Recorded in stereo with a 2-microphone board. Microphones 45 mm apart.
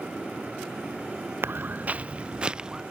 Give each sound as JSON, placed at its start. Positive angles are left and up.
{"t": 1.4, "sound": "footsteps", "side_deg": -55}